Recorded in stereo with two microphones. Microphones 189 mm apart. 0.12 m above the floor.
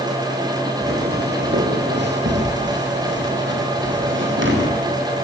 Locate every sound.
0.8 s footsteps: 60° right (ahead or behind), 4 m; by 4.7 s 85° right, 5.5 m